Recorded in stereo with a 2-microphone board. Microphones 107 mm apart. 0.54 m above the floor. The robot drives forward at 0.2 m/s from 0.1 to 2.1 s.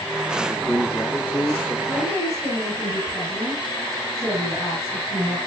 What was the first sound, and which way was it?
A man speaking, 20° left (ahead or behind).